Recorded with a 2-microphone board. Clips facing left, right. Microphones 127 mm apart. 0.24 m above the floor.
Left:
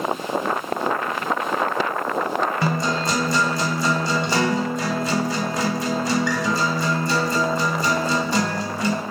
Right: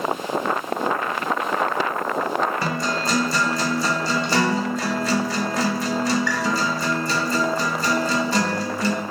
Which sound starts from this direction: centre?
A guitar, at 2.6 s.